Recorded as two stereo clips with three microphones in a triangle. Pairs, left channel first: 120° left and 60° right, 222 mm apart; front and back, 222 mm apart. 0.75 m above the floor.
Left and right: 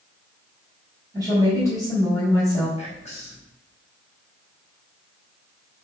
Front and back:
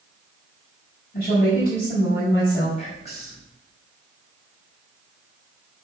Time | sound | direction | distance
1.1 | a woman speaking | 45° left | 4 m
2.8 | whispering | 60° left | 4.5 m